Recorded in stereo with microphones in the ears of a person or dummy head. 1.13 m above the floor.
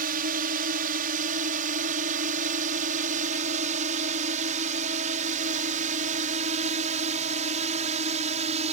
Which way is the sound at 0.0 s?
50° right (ahead or behind).